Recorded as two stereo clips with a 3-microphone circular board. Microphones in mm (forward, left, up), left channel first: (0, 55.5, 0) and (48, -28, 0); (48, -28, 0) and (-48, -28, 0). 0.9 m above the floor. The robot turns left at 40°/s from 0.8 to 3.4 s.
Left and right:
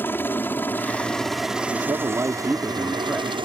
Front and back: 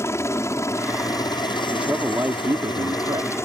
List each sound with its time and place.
0.0 s a helicopter: 55° left; by 3.5 s 55° right
1.7 s a man speaking: 95° right; by 3.4 s 160° right